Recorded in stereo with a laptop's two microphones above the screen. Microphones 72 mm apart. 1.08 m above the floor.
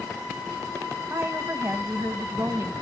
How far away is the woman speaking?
About 1.5 m.